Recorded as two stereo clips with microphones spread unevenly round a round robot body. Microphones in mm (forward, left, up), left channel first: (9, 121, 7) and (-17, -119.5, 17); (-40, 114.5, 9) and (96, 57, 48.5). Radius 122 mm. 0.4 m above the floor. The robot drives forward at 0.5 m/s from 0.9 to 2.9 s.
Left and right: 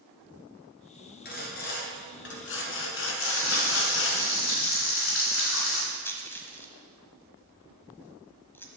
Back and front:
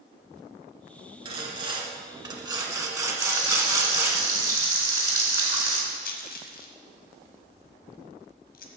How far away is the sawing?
About 2 m.